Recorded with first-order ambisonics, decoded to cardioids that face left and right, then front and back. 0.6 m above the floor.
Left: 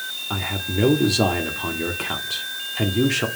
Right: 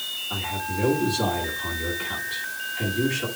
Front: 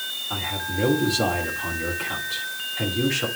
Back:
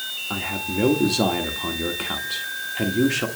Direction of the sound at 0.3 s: 120° left.